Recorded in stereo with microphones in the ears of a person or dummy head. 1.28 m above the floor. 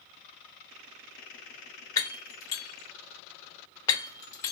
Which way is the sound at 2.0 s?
10° left (ahead or behind).